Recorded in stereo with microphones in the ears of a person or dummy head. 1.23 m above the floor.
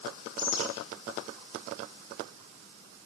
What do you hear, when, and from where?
0.4 s a bird: 75° left (ahead or behind), 8.5 m